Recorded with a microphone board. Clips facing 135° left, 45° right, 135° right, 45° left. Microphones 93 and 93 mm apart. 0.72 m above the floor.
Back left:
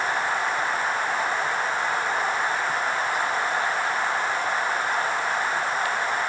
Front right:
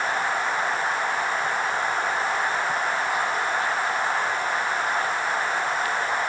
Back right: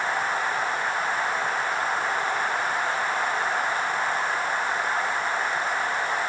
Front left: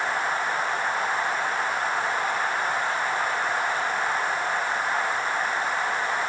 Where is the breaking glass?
I don't hear breaking glass.